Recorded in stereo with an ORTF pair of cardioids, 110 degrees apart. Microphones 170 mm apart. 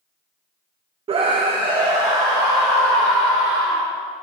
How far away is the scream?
About 0.5 m.